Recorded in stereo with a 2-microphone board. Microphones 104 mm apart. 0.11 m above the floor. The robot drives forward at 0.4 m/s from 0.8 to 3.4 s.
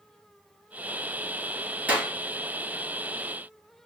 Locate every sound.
1.9 s a clap: 15° right (ahead or behind), 1.6 m